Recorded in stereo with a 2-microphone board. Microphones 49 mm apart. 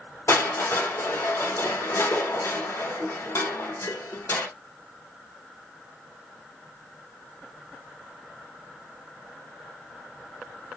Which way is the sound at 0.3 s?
70° left (ahead or behind).